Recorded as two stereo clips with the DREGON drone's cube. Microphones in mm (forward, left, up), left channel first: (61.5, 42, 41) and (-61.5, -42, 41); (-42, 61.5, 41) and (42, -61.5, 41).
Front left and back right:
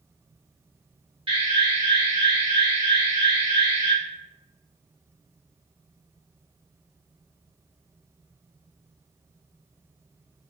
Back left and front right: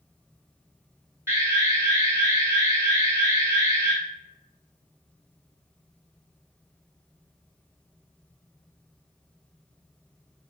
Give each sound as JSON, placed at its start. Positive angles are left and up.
{"t": 1.3, "sound": "an alarm", "azimuth_deg": -120, "distance_m": 1.7}